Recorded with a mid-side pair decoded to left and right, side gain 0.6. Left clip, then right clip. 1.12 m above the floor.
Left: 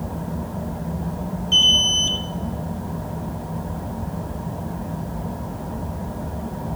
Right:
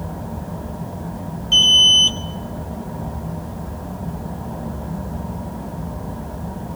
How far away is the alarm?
About 1.9 m.